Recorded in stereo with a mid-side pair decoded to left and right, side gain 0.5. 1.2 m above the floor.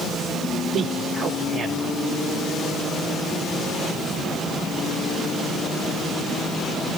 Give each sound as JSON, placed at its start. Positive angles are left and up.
{"t": 0.7, "sound": "a man speaking", "azimuth_deg": -65, "distance_m": 3.0}